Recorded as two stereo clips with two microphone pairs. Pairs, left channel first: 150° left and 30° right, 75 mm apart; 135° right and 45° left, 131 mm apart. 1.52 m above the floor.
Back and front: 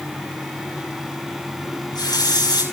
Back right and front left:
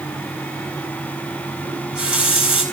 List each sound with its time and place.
1.6 s a running tap: 125° left, 9 m